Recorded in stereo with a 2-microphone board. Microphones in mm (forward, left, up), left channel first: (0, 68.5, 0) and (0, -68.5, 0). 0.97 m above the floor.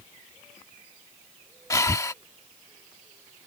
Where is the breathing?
25° left (ahead or behind).